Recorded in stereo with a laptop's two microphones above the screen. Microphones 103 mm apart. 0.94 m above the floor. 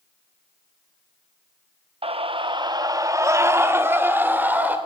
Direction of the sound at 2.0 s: 65° right (ahead or behind).